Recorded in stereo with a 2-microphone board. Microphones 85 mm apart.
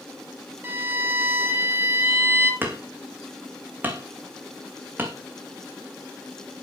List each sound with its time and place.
0.6 s a violin: 25° right (ahead or behind), 3 m
2.6 s hammering: 20° right (ahead or behind), 2.5 m